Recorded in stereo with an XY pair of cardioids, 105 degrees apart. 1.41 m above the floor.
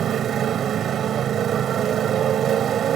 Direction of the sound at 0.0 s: 60° right.